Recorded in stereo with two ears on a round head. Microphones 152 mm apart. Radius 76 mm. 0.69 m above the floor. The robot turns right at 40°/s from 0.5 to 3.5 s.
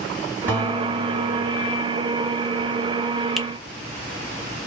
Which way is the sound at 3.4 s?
Centre (ahead or behind).